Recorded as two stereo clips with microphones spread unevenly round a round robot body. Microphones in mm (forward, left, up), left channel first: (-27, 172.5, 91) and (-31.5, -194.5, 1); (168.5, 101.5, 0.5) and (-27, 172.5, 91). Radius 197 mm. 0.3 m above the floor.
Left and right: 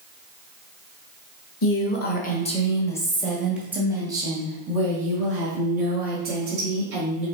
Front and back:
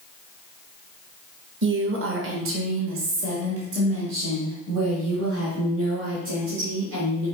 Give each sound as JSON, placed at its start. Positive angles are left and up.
{"t": 1.6, "sound": "a woman speaking", "azimuth_deg": 140, "distance_m": 1.4}